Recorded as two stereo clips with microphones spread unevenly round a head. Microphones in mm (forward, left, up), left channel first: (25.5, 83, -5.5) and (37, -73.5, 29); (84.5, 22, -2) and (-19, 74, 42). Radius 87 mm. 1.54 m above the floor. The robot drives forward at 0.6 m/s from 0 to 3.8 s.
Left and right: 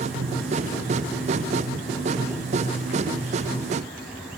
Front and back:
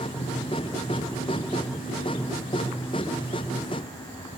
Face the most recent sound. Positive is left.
No sound to turn to.